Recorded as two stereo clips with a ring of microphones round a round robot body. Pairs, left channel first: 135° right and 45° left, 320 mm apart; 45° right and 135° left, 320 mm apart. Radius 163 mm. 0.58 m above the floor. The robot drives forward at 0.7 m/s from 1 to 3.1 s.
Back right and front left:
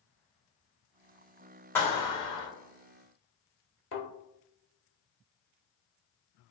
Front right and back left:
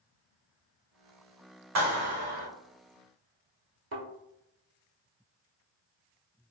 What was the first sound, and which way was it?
A clap, 145° left.